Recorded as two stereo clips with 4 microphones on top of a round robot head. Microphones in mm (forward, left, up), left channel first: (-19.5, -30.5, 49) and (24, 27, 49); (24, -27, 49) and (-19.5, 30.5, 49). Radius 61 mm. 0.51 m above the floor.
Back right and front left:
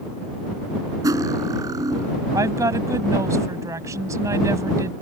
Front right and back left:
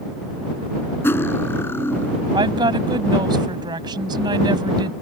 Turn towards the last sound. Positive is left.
turn(degrees=100)